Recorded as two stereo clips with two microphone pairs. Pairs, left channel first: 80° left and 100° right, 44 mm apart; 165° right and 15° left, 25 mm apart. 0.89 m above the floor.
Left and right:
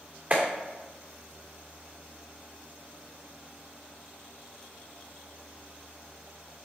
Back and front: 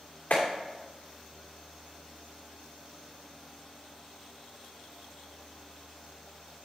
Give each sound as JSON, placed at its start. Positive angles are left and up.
{"t": 0.3, "sound": "a clap", "azimuth_deg": -150, "distance_m": 2.5}